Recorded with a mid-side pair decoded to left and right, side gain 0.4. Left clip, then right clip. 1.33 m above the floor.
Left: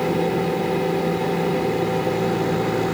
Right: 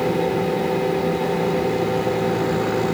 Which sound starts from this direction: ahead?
A fan, at 0.0 s.